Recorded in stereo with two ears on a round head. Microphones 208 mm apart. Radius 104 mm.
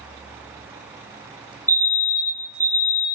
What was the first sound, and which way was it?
A fire alarm, 10° left (ahead or behind).